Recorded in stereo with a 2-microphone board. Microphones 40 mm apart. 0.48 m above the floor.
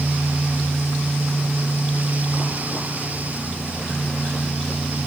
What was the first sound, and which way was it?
Only background noise.